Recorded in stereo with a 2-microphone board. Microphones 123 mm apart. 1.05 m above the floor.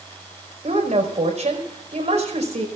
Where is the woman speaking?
65° right (ahead or behind), 5 m.